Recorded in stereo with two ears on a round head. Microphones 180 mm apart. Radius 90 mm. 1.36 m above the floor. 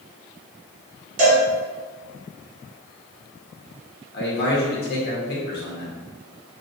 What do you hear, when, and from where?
1.2 s a cowbell: 40° right (ahead or behind), 1.7 m
4.1 s a man speaking: 50° left (ahead or behind), 1.3 m